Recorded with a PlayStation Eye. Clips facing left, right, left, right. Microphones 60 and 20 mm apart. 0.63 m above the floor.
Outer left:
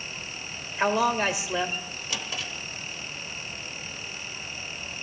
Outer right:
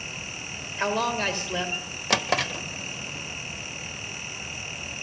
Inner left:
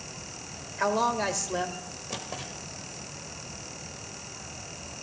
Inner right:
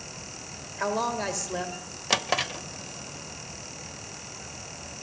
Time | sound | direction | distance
0.8 | a man speaking | 10° left (ahead or behind) | 2.5 m
2.1 | a drawer | 75° right (ahead or behind) | 0.7 m